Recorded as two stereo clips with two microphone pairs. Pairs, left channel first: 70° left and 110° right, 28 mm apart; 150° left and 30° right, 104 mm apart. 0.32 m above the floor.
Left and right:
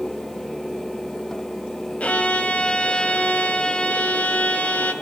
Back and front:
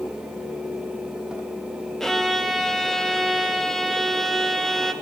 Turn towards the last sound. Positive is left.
turn(degrees=65)